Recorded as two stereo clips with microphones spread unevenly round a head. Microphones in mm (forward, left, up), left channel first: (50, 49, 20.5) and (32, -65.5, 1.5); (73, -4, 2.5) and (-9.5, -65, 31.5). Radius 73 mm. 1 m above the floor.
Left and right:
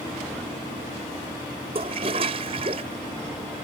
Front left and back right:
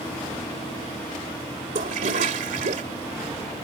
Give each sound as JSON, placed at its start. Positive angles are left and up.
{"t": 1.8, "sound": "a toilet flushing", "azimuth_deg": -155}